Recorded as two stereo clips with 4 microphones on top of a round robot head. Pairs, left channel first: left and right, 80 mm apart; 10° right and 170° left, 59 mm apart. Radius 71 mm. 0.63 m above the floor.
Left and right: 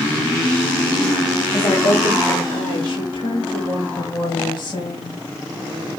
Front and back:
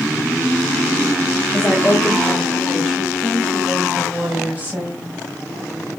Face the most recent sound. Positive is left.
turn(degrees=115)